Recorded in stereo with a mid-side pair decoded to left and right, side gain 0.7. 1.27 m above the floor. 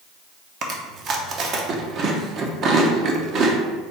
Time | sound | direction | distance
0.6 | chewing | 45° right | 0.8 m